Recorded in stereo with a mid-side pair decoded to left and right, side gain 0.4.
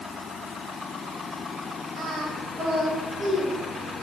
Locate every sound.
2.0 s singing: 45° right, 8 m